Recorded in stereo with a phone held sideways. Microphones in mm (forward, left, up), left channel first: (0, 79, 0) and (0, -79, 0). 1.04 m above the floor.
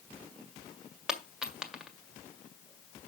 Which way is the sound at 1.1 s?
5° right (ahead or behind).